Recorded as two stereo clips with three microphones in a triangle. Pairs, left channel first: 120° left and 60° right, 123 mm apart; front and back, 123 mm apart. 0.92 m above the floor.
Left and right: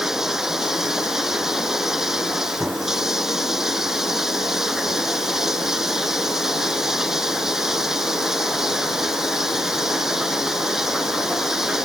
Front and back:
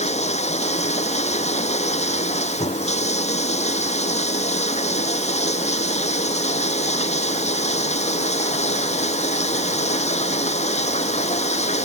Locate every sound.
0.0 s running water: 25° left